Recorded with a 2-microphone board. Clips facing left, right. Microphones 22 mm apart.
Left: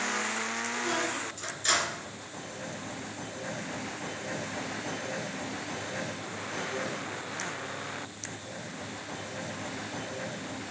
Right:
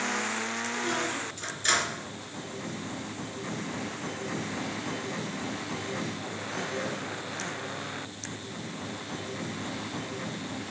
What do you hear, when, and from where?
0.7 s a squeak: 15° right (ahead or behind), 2.5 m